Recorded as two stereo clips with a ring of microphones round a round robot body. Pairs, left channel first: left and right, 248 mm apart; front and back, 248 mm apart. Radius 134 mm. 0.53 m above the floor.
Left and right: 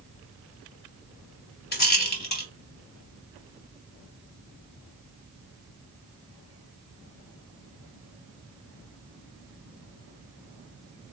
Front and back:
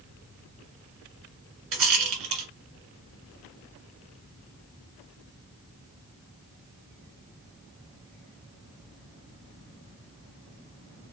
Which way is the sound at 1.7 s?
140° left.